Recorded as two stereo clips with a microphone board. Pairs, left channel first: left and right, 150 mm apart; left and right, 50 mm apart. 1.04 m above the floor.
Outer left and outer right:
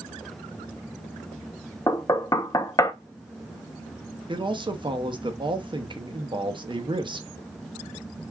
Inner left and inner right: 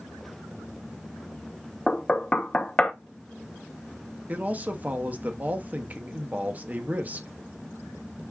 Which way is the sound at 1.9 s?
25° left (ahead or behind).